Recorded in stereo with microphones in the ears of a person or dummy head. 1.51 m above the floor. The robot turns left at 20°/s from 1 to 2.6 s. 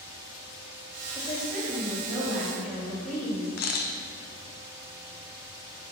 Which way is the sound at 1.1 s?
20° left (ahead or behind).